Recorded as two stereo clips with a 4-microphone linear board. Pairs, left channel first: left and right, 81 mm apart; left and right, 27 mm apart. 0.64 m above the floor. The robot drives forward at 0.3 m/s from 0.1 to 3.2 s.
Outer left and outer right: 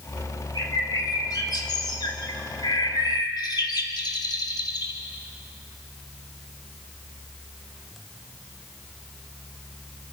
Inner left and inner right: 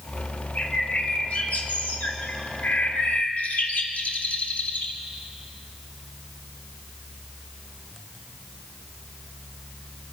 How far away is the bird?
About 2.5 m.